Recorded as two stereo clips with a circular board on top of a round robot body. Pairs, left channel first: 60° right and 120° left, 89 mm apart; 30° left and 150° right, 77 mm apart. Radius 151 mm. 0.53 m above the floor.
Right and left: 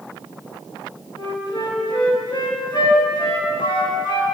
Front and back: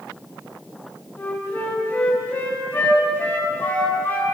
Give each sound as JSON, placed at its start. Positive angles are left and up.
{"t": 1.2, "sound": "a flute", "azimuth_deg": -30, "distance_m": 6.5}